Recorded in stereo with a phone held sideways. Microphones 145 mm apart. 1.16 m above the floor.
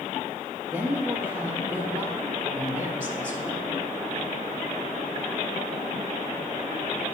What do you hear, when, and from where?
0.7 s a woman speaking: 25° right (ahead or behind), 3 m